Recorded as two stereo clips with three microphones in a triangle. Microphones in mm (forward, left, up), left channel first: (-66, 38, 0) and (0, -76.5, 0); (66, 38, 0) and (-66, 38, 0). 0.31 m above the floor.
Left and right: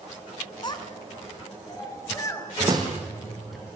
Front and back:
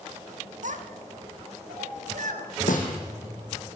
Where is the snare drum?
Straight ahead, 4.5 m.